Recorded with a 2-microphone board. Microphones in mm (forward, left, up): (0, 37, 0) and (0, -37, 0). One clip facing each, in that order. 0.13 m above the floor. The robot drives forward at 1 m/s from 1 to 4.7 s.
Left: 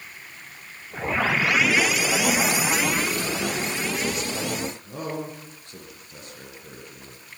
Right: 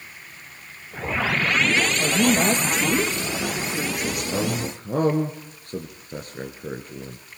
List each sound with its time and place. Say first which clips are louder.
2.0 s a woman speaking: right 3 dB; 45° right (ahead or behind), 6.5 m; by 4.7 s 65° right (ahead or behind), 5 m
4.3 s a man speaking: right 3 dB; 50° right (ahead or behind), 2.5 m